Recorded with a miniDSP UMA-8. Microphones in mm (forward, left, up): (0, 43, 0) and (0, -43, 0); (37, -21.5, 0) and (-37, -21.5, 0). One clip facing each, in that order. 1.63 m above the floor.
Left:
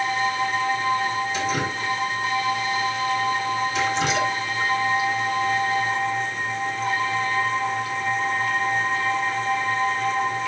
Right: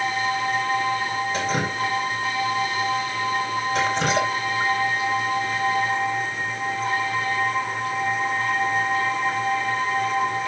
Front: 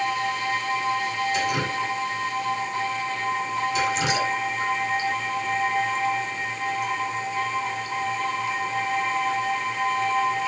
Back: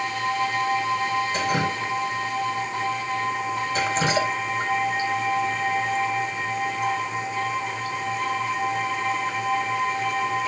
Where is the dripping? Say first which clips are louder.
Right 1 dB, back 1 dB; 130° right, 3.5 m.